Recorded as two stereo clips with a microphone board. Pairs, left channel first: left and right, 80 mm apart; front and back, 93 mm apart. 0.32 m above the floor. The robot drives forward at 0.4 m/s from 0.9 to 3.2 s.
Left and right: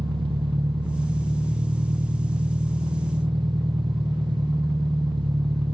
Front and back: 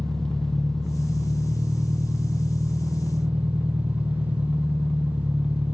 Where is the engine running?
85° right, 3 m; by 5.7 s 105° right, 3 m.